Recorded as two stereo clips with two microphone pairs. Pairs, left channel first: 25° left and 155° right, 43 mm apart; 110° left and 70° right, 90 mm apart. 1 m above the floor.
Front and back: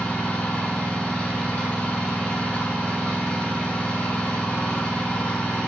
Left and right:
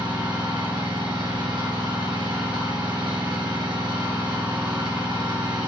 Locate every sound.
0.0 s an engine running: 40° right, 3.5 m